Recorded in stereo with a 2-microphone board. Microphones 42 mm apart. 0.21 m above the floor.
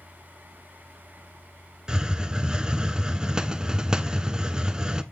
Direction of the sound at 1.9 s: 20° right (ahead or behind).